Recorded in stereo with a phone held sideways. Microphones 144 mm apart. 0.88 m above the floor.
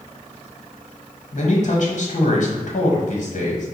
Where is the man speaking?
55° left (ahead or behind), 1.2 m.